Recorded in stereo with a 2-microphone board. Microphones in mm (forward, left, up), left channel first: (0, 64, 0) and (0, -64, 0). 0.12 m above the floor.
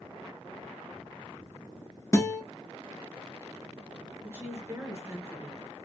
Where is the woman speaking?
20° right (ahead or behind), 1.2 m.